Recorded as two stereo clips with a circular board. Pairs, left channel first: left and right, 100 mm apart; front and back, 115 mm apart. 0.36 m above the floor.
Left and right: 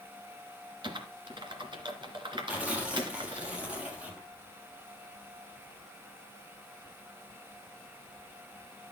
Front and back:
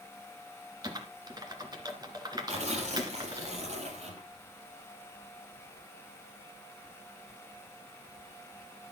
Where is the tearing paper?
165° right, 3.5 m.